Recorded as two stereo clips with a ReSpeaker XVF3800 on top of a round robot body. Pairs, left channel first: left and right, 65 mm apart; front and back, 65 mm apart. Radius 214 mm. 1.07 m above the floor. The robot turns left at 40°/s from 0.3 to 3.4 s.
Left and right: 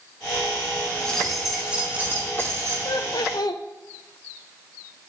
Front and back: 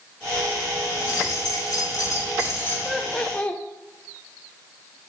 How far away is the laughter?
About 0.6 m.